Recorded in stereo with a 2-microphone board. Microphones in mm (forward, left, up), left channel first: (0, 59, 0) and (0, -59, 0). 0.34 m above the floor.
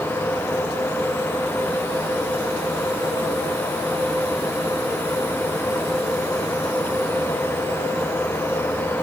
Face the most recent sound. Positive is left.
No sound to turn to.